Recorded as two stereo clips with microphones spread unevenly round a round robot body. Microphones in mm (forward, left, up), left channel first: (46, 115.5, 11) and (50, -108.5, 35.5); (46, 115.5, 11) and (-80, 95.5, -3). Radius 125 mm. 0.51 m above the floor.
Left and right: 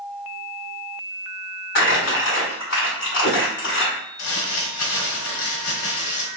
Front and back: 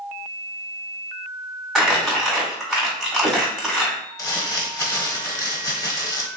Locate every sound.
1.8 s crumpling: 105° left, 2 m
4.2 s crumpling: 75° left, 1.3 m